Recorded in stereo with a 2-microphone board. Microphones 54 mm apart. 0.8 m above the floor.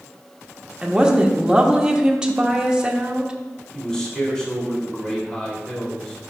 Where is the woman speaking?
15° right (ahead or behind), 0.9 m.